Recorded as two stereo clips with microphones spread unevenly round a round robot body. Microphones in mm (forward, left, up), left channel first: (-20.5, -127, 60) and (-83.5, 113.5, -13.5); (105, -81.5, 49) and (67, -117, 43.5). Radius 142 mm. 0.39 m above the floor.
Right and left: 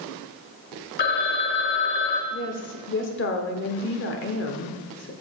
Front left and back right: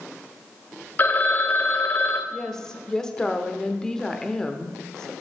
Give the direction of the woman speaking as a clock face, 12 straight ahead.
1 o'clock.